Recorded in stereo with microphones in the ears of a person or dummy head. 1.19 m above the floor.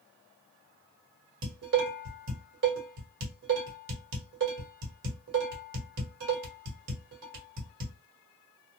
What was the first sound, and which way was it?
Dishes clattering, 70° right (ahead or behind).